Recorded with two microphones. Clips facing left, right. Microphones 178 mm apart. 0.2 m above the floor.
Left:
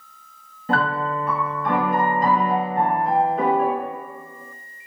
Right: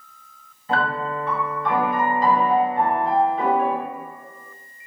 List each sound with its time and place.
0.7 s a piano: 50° left (ahead or behind), 0.9 m